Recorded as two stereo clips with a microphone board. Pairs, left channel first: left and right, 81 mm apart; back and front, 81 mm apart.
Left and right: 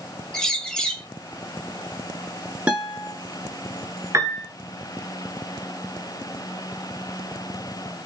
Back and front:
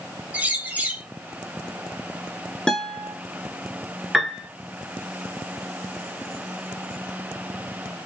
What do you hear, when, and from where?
0.3 s a bird: 25° left, 0.7 m
2.7 s a guitar: 115° right, 1.1 m
4.1 s a piano: 90° right, 1.0 m